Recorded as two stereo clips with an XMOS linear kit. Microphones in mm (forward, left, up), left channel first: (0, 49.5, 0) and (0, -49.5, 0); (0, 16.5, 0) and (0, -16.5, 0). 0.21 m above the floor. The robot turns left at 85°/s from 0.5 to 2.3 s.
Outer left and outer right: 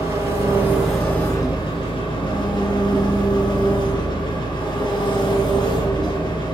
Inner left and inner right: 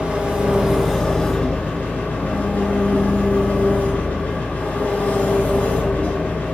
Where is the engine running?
140° right, 1.5 m; by 6.5 s 65° left, 1.5 m.